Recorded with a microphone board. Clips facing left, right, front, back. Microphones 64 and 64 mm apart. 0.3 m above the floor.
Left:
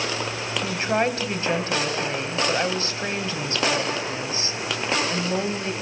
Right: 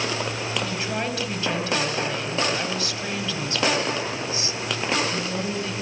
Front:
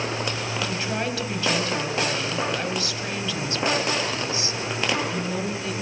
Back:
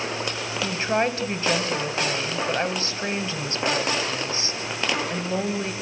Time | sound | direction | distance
0.6 | a woman speaking | 135° left | 1.6 m